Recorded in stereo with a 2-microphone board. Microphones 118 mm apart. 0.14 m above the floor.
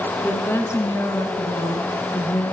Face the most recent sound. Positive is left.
turn(degrees=30)  # may be behind; listen again after turning